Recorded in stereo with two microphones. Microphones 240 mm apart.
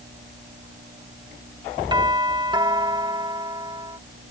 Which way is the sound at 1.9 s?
20° right (ahead or behind).